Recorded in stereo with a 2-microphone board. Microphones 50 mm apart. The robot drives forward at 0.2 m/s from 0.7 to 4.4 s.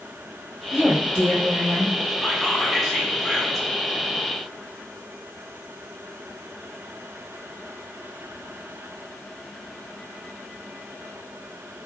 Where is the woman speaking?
35° right (ahead or behind), 1.0 m.